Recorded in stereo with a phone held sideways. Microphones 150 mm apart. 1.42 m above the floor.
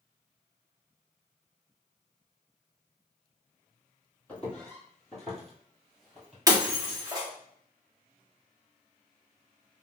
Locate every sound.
4.3 s footsteps: 10° left (ahead or behind), 1.6 m; by 6.4 s 5° right (ahead or behind), 1.6 m
6.5 s breaking glass: 25° right (ahead or behind), 1.1 m